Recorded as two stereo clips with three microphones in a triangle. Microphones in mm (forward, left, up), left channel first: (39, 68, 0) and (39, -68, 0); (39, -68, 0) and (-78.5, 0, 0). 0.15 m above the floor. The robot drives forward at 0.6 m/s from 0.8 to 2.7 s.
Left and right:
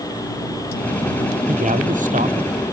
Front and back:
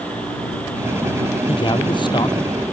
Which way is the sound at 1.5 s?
80° right.